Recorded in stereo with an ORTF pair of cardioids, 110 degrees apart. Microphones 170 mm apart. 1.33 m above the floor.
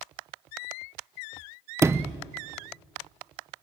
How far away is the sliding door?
About 0.7 m.